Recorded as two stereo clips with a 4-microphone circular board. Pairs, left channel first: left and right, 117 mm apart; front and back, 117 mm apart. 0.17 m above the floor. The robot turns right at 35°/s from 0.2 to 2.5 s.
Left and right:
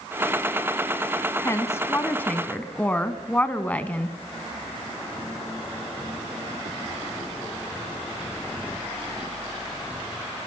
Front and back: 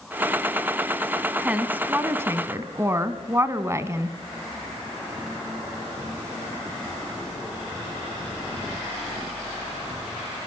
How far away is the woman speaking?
About 1.2 m.